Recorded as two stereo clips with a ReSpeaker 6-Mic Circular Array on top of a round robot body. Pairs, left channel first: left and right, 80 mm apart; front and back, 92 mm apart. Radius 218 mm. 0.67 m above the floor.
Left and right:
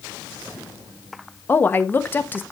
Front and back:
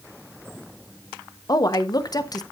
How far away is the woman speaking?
About 1.4 m.